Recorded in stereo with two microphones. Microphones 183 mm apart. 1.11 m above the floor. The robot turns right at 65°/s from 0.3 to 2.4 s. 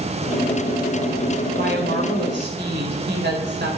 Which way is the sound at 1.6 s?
125° right.